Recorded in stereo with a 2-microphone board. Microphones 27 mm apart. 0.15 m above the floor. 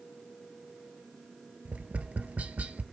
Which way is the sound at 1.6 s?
65° right (ahead or behind).